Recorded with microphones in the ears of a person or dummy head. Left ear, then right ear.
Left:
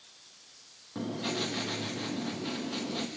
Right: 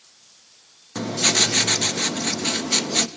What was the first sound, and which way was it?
Writing, 65° right (ahead or behind).